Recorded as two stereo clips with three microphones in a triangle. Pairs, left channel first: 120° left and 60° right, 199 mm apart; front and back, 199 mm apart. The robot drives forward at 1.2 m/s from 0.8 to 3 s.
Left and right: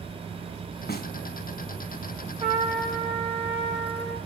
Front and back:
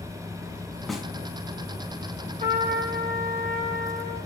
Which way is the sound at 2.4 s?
120° right.